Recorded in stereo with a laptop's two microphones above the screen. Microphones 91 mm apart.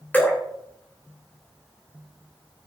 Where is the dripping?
20° left (ahead or behind), 3 m.